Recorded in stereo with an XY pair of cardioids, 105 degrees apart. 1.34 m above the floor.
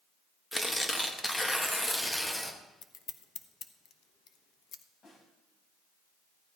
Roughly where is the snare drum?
Ahead left.